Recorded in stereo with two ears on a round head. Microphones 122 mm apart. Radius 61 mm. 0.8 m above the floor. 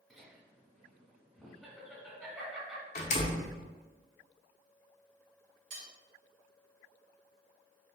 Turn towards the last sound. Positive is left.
turn(degrees=-55)  # may be behind; listen again after turning